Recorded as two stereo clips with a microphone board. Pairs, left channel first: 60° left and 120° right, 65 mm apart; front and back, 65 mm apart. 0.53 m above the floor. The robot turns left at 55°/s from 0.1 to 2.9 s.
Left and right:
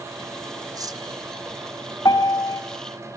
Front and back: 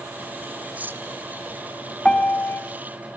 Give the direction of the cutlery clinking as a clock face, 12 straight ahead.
4 o'clock.